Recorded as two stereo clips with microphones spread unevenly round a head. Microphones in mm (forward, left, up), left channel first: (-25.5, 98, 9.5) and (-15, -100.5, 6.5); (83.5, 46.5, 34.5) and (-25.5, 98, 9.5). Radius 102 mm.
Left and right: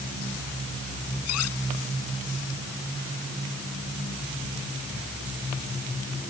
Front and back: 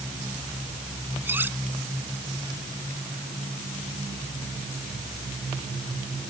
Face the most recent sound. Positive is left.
turn(degrees=80)